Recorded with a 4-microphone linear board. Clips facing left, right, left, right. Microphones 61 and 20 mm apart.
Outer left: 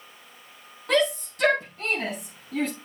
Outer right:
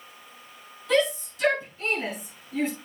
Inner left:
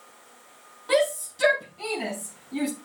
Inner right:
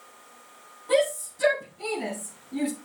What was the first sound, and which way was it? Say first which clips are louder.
A shout: even, inner left 1 dB; 50° left (ahead or behind).